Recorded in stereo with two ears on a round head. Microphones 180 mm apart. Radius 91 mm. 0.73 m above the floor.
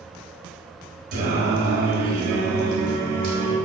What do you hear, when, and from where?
1.1 s singing: 55° right (ahead or behind), 4 m